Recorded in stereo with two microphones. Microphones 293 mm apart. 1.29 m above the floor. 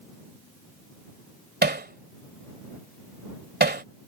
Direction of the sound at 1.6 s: 35° right (ahead or behind).